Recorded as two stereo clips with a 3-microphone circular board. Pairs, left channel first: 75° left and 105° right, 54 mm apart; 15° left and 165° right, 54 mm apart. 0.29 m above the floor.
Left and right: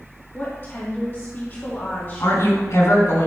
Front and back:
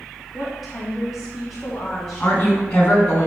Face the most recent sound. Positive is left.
turn(degrees=80)